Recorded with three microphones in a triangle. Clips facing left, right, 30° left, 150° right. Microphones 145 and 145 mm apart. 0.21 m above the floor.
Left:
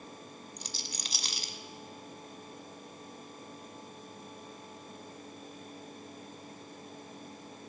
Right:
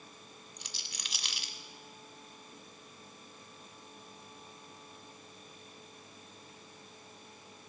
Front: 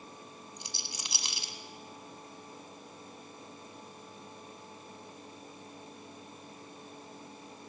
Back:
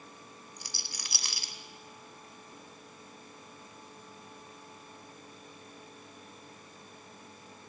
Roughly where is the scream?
No scream in this recording.